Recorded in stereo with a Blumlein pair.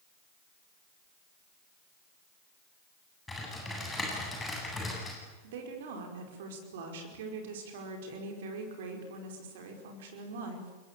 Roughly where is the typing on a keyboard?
Ahead.